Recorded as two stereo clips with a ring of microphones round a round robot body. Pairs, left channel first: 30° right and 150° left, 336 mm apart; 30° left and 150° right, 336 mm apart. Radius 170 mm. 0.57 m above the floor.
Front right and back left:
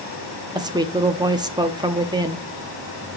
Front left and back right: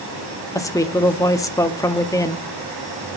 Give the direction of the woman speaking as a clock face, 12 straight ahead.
9 o'clock.